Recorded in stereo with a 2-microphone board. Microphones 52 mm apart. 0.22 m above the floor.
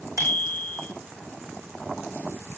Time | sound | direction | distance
0.2 | a bicycle bell | 80° right | 9.5 m